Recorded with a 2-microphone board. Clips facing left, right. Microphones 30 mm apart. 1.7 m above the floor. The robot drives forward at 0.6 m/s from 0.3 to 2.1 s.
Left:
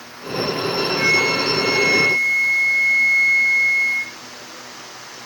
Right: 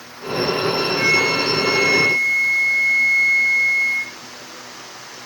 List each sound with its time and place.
1.0 s a flute: centre (ahead or behind)